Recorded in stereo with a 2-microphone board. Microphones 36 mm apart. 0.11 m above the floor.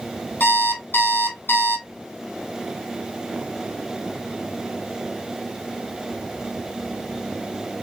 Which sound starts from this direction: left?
An alarm clock, at 0.4 s.